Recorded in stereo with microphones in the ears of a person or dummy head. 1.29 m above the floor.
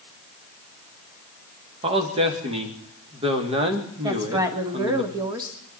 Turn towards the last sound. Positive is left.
turn(degrees=-15)  # may be behind; listen again after turning